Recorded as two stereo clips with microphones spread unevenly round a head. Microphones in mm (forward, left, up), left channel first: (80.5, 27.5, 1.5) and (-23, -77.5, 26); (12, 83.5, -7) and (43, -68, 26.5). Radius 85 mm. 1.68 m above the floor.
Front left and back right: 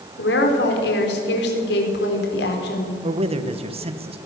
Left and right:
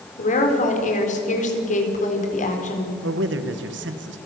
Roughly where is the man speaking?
Right.